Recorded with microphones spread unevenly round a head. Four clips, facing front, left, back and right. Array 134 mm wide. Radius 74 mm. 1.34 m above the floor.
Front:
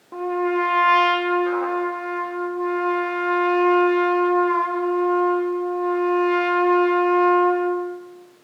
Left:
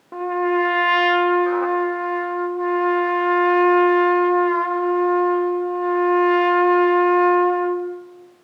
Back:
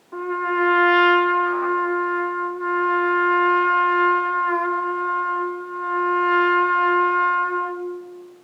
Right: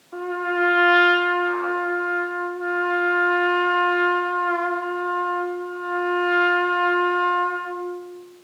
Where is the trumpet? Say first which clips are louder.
Left 5 dB, front 1 dB; 60° left, 3 m.